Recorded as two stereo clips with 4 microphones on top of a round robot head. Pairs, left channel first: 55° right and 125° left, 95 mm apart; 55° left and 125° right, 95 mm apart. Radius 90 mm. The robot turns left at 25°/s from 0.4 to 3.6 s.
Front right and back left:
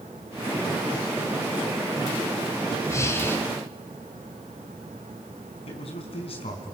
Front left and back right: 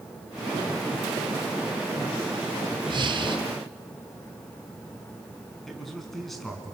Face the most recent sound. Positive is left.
turn(degrees=-35)